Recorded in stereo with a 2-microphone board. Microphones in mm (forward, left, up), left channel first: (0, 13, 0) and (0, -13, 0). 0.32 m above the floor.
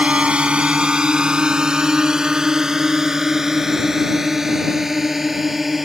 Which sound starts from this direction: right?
A drone, at 0.0 s.